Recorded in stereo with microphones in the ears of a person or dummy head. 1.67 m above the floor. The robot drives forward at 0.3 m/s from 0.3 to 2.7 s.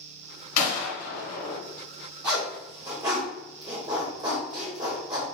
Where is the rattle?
I don't hear a rattle.